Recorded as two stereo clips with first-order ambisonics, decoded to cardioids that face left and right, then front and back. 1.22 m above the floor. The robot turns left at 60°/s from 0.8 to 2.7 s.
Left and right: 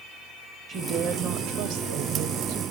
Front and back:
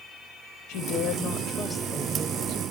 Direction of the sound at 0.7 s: 25° right.